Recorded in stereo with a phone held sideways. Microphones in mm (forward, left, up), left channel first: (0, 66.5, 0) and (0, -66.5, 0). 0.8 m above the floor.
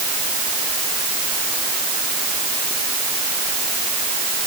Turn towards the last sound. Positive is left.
No sound to turn to.